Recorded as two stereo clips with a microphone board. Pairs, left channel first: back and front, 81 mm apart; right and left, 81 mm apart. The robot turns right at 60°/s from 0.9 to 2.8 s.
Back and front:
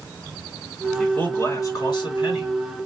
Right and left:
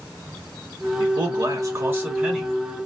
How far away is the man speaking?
About 2.5 m.